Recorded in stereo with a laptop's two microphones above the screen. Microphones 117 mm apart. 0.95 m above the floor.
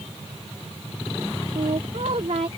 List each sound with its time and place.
1.6 s a woman speaking: 70° right (ahead or behind)